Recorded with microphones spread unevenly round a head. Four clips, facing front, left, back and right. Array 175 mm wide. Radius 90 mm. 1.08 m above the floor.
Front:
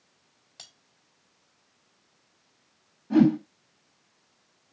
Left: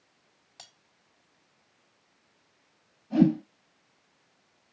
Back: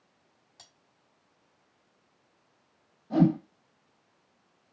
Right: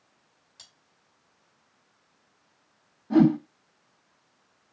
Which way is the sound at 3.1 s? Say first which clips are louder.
Right 3 dB, front 4 dB; 60° right.